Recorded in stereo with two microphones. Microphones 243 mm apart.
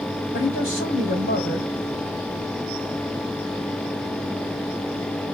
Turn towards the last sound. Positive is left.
turn(degrees=55)  # may be behind; listen again after turning